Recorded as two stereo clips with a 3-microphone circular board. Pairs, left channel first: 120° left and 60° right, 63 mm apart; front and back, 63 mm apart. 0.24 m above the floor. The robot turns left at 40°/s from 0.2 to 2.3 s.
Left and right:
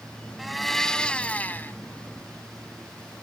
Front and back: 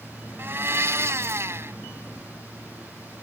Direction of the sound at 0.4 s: 145° right.